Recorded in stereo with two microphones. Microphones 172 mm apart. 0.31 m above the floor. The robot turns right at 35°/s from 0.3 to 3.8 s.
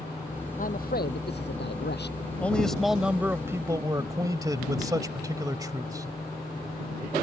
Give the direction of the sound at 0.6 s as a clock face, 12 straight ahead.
10 o'clock.